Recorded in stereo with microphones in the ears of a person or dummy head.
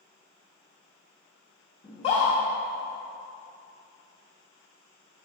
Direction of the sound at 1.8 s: 30° left (ahead or behind).